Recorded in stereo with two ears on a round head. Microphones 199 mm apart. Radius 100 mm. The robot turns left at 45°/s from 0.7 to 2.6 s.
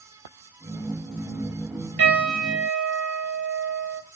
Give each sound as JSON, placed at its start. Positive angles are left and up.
{"t": 2.0, "sound": "a piano", "side_deg": -40, "distance_m": 1.6}